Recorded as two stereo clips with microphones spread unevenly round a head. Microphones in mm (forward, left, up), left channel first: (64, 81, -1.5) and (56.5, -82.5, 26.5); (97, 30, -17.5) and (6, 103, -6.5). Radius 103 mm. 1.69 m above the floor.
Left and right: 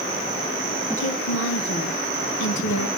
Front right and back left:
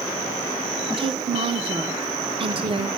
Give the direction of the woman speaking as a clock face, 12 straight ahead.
8 o'clock.